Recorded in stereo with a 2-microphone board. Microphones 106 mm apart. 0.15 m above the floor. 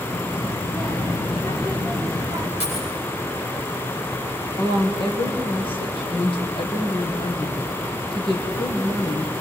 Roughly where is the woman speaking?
Left.